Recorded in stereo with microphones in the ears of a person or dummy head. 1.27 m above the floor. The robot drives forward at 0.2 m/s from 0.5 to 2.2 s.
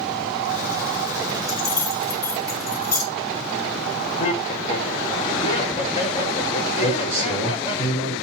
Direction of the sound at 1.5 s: 15° left (ahead or behind).